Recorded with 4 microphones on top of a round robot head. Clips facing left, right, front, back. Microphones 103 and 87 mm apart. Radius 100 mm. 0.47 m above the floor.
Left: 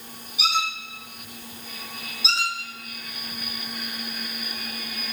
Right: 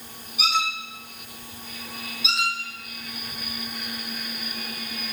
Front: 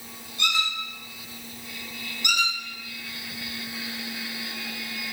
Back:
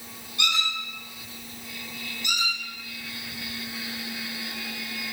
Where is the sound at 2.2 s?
30° left, 2.5 m.